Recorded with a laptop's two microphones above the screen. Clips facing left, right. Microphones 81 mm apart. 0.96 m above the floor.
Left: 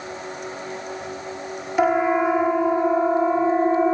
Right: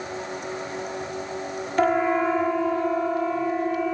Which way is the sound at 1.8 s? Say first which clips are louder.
Left 2 dB; 10° left (ahead or behind).